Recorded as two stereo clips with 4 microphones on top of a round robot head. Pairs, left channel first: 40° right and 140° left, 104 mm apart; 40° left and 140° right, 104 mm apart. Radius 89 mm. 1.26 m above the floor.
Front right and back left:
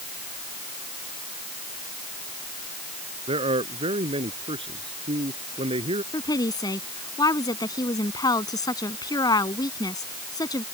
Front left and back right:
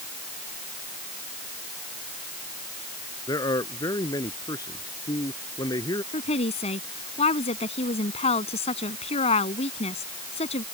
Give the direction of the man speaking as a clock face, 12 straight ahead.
9 o'clock.